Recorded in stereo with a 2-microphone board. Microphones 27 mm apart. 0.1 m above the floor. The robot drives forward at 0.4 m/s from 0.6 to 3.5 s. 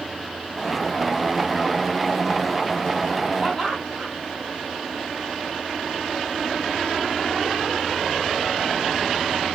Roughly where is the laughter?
Centre.